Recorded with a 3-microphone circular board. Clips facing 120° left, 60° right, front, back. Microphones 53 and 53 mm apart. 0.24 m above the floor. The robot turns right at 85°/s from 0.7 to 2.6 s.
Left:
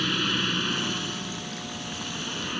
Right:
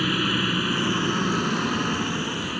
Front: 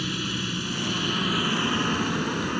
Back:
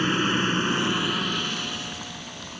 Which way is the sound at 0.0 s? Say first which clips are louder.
Right 3 dB, back 7 dB; 135° right.